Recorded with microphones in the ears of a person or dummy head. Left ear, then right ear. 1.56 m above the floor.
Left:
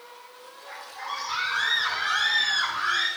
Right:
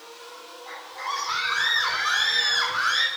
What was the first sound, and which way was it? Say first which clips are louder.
A scream: right 3 dB; 55° right (ahead or behind).